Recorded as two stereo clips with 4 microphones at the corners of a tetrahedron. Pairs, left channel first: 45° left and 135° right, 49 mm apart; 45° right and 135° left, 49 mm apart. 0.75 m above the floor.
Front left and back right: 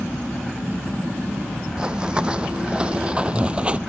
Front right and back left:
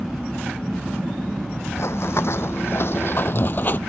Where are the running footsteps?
65° right; by 3.8 s 80° right.